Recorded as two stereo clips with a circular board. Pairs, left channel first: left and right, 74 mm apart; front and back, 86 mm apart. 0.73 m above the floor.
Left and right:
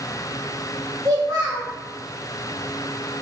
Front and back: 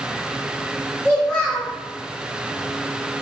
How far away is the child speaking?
About 0.9 m.